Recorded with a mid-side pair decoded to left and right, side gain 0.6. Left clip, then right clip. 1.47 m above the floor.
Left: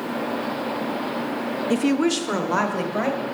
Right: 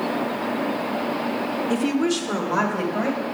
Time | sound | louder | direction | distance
1.7 | a woman speaking | left 3 dB | 10° left | 0.5 m